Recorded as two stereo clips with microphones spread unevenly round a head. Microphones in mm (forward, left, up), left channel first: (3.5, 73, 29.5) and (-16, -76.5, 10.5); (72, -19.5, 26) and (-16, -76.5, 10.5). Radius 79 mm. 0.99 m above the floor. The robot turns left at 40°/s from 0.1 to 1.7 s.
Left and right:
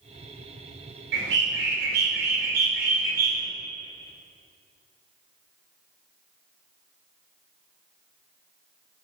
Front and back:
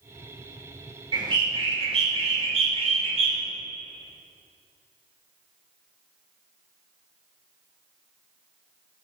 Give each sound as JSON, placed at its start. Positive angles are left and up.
{"t": 1.1, "sound": "a bird", "azimuth_deg": -100, "distance_m": 1.7}